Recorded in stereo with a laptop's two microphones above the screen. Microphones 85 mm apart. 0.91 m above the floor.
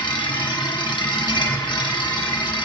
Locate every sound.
0.0 s a machine running: 60° left (ahead or behind), 1.2 m